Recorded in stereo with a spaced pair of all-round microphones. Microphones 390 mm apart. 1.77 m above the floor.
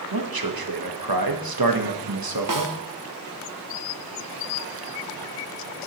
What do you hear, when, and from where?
0.1 s a man speaking: 65° right (ahead or behind), 1.0 m
2.5 s a snare drum: 55° right (ahead or behind), 0.6 m